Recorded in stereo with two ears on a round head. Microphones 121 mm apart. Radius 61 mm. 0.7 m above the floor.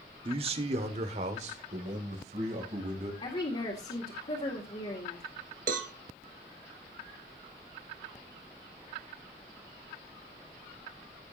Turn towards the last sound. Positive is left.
turn(degrees=-65)  # may be behind; listen again after turning